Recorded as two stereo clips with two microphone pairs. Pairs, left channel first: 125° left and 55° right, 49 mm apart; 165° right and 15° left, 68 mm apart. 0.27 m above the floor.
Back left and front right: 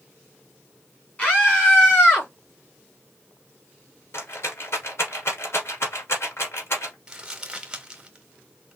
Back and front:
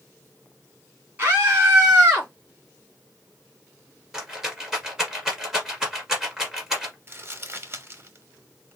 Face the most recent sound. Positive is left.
turn(degrees=10)